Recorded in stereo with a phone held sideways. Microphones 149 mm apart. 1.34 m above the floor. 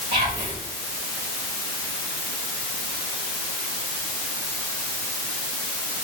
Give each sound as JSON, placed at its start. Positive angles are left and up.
{"t": 0.1, "sound": "whispering", "side_deg": -80, "distance_m": 3.0}